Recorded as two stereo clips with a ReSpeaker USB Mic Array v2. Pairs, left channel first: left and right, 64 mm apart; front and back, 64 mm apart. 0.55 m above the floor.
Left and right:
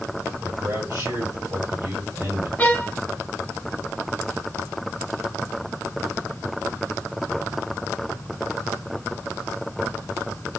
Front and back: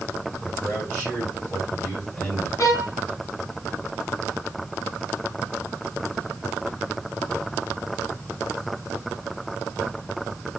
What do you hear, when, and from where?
0.4 s a man speaking: 70° right, 2 m
2.6 s a violin: 30° left, 0.9 m